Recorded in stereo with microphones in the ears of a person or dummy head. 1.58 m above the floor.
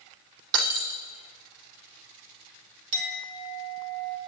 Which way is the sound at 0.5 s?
65° right (ahead or behind).